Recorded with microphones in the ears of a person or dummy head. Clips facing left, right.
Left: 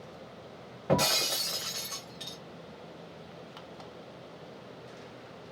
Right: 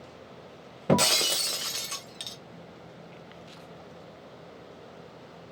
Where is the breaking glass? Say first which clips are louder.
Right 3 dB; 35° right (ahead or behind), 0.5 m.